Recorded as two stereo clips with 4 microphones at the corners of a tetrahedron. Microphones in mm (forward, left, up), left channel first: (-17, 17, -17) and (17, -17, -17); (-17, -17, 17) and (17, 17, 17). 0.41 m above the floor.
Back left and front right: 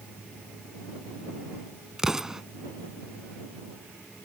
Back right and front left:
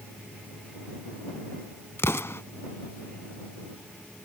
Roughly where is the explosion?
Behind right.